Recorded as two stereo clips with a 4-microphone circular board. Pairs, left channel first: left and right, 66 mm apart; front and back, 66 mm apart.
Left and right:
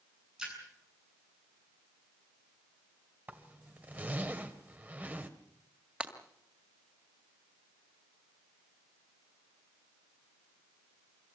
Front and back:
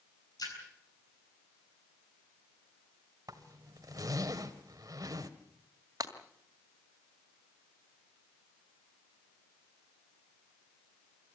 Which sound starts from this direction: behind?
Breaking glass, at 6.0 s.